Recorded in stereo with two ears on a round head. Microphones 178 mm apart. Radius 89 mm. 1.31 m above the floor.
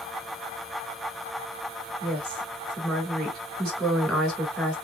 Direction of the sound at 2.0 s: Centre (ahead or behind).